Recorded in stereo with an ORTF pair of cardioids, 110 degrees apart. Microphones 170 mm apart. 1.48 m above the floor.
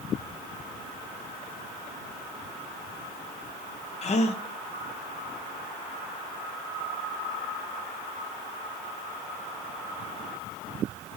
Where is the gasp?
40° left, 1.1 m.